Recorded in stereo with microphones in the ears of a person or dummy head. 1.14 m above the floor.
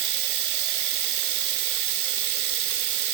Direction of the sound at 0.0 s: 55° right (ahead or behind).